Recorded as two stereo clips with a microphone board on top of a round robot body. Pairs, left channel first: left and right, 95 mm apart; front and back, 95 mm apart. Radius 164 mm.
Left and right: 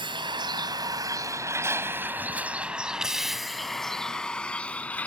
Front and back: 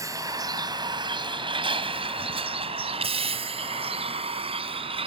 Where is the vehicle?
125° right; by 5.1 s 165° left.